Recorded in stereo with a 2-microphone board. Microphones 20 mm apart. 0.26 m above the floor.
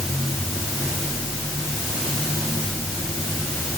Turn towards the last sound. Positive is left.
No sound to turn to.